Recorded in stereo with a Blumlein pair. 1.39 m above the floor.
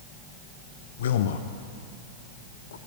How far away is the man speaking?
About 0.6 m.